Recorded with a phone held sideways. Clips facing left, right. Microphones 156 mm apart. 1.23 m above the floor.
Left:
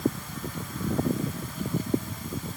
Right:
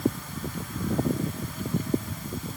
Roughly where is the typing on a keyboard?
No typing on a keyboard in this recording.